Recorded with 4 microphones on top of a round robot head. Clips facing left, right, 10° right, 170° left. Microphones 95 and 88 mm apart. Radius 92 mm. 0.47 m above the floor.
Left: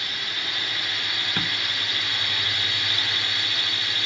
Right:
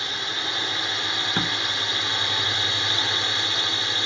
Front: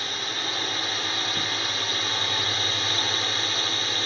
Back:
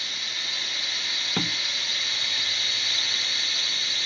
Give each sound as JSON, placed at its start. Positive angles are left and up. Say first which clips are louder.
{"t": 0.0, "sound": "a drone", "louder": "right 3 dB, front 6 dB", "azimuth_deg": -35}
{"t": 1.4, "sound": "a door slam", "louder": "right 3 dB, back 1 dB", "azimuth_deg": -160}